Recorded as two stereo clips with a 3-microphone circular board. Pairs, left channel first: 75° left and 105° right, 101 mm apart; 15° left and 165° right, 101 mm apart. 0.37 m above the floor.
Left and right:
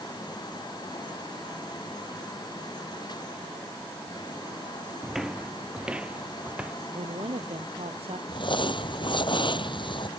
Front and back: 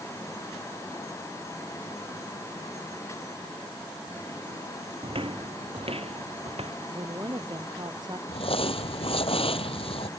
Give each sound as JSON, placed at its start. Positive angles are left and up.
{"t": 5.0, "sound": "footsteps", "azimuth_deg": 165}
{"t": 6.9, "sound": "a woman speaking", "azimuth_deg": -120}
{"t": 8.3, "sound": "crumpling", "azimuth_deg": 40}